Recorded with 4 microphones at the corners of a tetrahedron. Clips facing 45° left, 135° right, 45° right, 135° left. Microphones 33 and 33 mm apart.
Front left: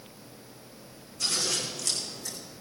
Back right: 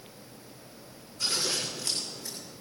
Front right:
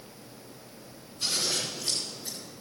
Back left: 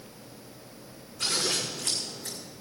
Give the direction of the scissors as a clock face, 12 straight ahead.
7 o'clock.